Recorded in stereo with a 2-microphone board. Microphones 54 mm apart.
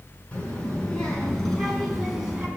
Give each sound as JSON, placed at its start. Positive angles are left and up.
{"t": 0.3, "sound": "a child speaking", "side_deg": 20, "distance_m": 5.5}